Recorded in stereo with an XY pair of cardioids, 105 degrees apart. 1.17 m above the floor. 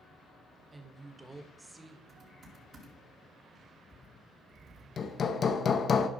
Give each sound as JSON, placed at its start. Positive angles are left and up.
{"t": 0.7, "sound": "a woman speaking", "azimuth_deg": -15, "distance_m": 1.6}
{"t": 2.1, "sound": "typing on a keyboard", "azimuth_deg": -45, "distance_m": 3.0}
{"t": 5.0, "sound": "hammering", "azimuth_deg": 45, "distance_m": 0.8}